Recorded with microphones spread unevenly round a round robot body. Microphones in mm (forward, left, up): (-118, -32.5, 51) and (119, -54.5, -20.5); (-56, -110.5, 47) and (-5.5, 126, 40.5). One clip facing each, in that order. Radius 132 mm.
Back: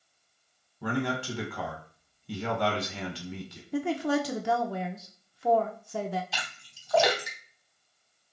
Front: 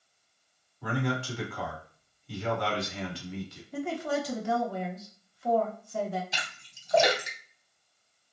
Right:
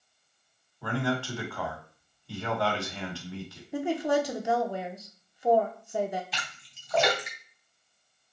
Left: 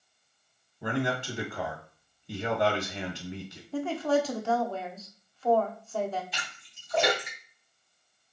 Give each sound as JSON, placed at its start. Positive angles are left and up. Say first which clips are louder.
{"t": 0.8, "sound": "a man speaking", "louder": "back 1 dB, even", "azimuth_deg": 145, "distance_m": 1.6}
{"t": 3.7, "sound": "a woman speaking", "louder": "back 4 dB, even", "azimuth_deg": -175, "distance_m": 0.9}
{"t": 6.3, "sound": "a splash", "louder": "back 1 dB, right 2 dB", "azimuth_deg": -75, "distance_m": 2.5}